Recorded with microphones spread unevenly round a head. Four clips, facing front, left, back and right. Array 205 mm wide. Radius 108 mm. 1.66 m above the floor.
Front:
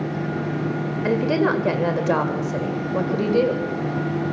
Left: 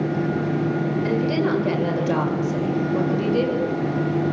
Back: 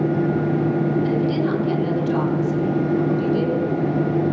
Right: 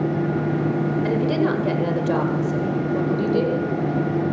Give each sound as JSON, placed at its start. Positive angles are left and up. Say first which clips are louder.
{"t": 1.0, "sound": "a woman speaking", "louder": "right 1 dB, even", "azimuth_deg": -5, "distance_m": 8.0}